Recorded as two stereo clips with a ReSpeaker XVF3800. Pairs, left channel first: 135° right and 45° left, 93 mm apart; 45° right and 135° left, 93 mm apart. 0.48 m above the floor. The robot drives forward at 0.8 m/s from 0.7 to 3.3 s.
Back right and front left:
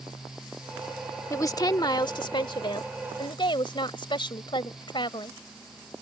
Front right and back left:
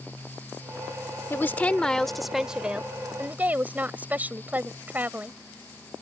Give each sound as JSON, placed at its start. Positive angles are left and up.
{"t": 1.3, "sound": "a woman speaking", "azimuth_deg": -95}